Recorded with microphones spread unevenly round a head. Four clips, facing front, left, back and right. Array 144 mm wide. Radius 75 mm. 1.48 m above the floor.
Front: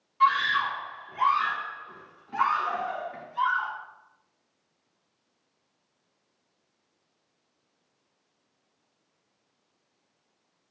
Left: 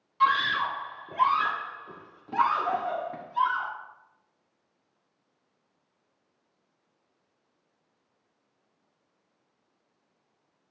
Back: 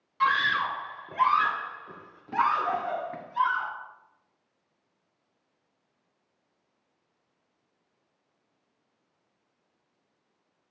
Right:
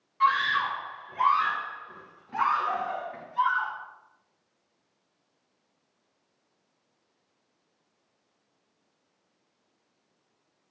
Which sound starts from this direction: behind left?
A scream, at 0.2 s.